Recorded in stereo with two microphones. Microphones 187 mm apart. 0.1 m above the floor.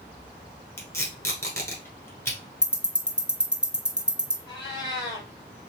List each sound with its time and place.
0.8 s tape being pulled: 15° left (ahead or behind), 1.0 m
2.6 s ticking: 5° right (ahead or behind), 0.7 m
4.5 s a cat meowing: 20° left (ahead or behind), 1.4 m